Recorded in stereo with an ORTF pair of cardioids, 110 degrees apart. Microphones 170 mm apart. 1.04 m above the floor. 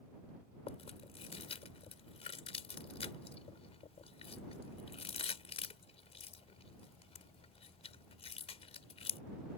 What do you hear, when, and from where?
0.7 s chewing: 40° left